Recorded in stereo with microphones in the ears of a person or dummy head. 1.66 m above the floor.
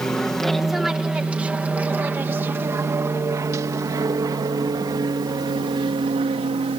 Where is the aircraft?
Centre (ahead or behind); by 6.8 s 30° right (ahead or behind).